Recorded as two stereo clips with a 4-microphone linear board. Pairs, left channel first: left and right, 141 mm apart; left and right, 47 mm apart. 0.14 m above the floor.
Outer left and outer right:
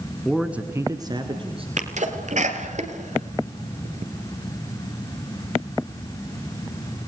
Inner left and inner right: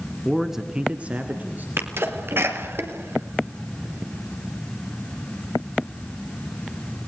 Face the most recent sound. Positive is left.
turn(degrees=-55)  # may be behind; listen again after turning